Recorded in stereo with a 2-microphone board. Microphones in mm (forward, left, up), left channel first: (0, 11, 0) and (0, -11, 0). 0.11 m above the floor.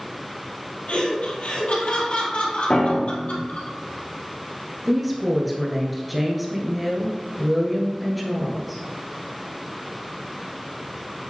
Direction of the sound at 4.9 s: Centre (ahead or behind).